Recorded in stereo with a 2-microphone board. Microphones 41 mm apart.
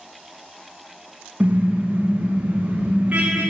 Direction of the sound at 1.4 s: 35° right (ahead or behind).